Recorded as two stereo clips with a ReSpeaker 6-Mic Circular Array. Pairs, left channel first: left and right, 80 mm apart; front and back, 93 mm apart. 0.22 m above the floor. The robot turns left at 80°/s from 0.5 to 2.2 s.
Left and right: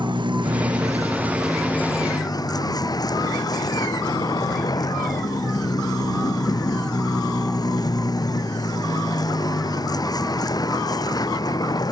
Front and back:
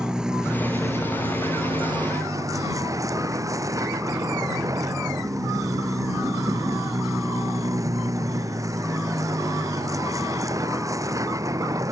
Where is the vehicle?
95° right; by 11.9 s 125° left.